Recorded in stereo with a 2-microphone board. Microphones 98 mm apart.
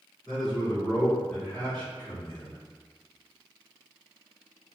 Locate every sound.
0.3 s a man speaking: 10° left (ahead or behind), 1.9 m; by 2.6 s 20° left (ahead or behind), 1.7 m